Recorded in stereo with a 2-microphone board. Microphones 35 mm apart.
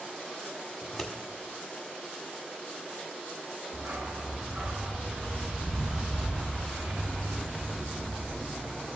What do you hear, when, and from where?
0.8 s scissors: 5° left (ahead or behind), 1.8 m
3.7 s a dog barking: 55° right (ahead or behind), 1.6 m